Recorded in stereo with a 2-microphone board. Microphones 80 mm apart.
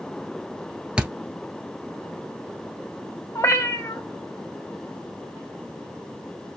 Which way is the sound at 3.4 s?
35° left (ahead or behind).